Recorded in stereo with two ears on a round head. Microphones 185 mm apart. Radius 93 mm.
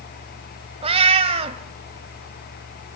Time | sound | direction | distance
0.8 | a cat meowing | 30° right (ahead or behind) | 1.4 m